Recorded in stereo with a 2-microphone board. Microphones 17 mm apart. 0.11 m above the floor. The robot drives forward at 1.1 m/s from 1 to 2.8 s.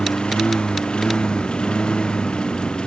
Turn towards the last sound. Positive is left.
turn(degrees=70)  # may be behind; listen again after turning